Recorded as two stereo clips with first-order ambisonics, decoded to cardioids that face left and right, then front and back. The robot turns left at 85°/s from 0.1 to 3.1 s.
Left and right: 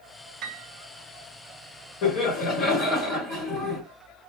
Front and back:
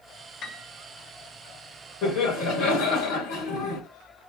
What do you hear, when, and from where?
0.4 s a piano: 50° right, 0.7 m; by 0.7 s 75° right, 0.7 m
2.0 s laughter: 60° left, 3 m; by 3.8 s 35° right, 3 m